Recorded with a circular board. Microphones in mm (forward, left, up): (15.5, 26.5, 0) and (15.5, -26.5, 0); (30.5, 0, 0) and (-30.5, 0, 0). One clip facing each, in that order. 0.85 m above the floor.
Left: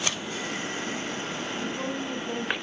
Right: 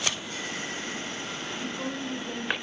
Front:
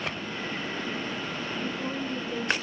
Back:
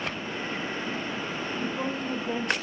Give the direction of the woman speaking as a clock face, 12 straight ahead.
7 o'clock.